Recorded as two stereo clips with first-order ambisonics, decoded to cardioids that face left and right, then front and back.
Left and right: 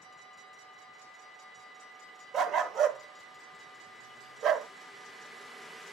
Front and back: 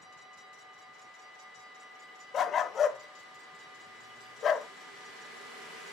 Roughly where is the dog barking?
Ahead right.